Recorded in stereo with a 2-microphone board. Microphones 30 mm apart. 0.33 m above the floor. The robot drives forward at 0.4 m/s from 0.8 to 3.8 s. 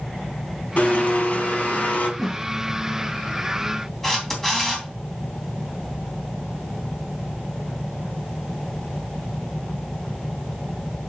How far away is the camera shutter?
About 3 m.